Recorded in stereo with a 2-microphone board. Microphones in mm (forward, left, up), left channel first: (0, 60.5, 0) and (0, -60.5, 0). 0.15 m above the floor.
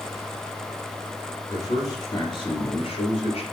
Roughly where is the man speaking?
Left.